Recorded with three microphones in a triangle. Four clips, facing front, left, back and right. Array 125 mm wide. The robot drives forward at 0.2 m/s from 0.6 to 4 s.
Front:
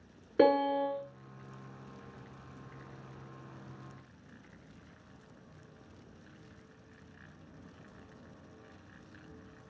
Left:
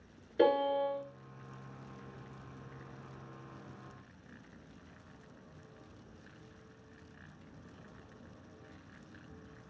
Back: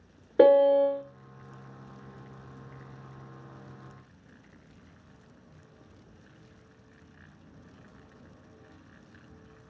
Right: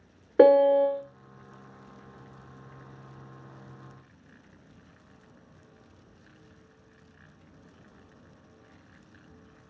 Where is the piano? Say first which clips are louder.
Right 11 dB, back 8 dB; 115° right, 0.6 m; by 1.0 s 125° right, 0.6 m.